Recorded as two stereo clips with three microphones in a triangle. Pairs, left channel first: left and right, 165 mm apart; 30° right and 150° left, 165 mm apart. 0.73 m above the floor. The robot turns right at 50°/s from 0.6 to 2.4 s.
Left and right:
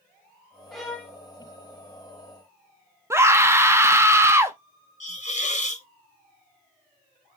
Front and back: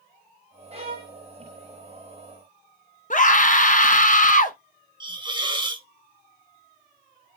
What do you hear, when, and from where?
0.7 s a violin: straight behind, 1.1 m; by 1.2 s 160° right, 1.1 m
3.1 s a scream: 20° right, 0.7 m
5.0 s a hiss: 100° left, 0.7 m